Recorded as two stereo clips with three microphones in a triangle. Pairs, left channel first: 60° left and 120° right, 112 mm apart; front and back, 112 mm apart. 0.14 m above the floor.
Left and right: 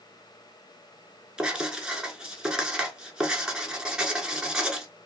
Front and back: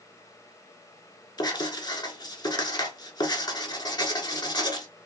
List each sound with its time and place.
1.4 s writing: 40° right, 0.7 m